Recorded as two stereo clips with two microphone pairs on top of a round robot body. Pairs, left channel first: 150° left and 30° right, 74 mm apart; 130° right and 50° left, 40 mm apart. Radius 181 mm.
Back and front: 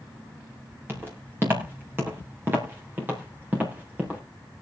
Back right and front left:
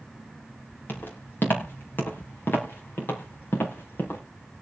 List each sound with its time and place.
0.9 s footsteps: 95° right, 6.5 m; by 4.2 s 100° right, 4 m